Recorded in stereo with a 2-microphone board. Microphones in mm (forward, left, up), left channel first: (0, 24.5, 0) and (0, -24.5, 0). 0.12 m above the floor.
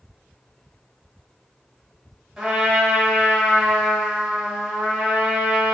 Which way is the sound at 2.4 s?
5° right (ahead or behind).